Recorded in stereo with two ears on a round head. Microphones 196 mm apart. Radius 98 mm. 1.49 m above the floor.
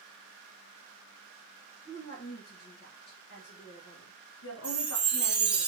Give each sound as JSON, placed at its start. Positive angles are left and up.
{"t": 1.9, "sound": "a woman speaking", "side_deg": 40, "distance_m": 2.5}
{"t": 4.6, "sound": "a chime", "side_deg": -5, "distance_m": 1.1}